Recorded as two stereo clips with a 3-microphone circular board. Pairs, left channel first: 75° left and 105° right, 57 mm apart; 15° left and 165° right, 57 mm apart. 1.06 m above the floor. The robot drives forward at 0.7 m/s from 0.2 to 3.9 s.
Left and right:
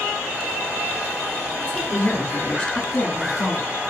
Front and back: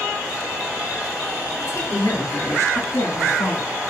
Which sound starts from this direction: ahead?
A woman speaking, at 1.6 s.